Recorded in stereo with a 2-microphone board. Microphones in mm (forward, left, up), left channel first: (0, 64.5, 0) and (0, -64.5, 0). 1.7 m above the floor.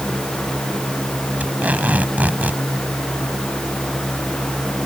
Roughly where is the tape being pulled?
Centre.